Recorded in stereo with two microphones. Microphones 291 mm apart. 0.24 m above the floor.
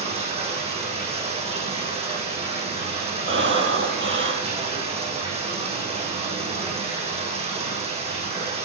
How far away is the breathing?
About 2.5 m.